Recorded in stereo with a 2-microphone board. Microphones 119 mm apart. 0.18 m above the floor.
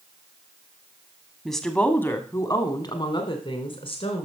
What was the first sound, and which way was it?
A woman speaking, centre (ahead or behind).